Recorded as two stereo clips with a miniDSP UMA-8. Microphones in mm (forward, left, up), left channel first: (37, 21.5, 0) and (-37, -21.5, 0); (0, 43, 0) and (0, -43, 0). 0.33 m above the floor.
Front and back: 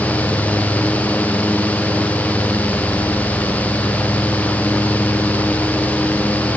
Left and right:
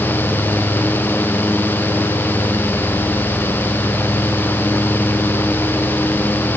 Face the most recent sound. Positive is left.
No sound to turn to.